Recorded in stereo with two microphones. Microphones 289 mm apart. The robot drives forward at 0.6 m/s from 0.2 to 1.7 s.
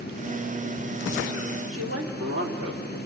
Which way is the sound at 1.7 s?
55° right (ahead or behind).